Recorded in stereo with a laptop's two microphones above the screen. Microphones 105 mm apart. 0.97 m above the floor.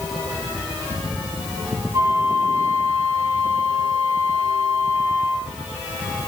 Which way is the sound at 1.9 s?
30° right (ahead or behind).